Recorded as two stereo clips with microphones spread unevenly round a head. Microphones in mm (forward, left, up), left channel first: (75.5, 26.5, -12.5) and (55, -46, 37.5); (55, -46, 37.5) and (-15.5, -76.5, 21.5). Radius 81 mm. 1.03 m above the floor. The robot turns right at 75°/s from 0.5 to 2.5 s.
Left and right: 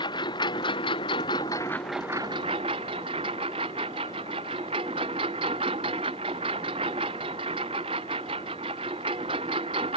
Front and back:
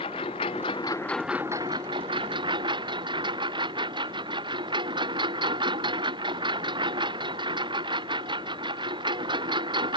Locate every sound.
0.0 s a lawn mower: 60° left; by 10.0 s 150° right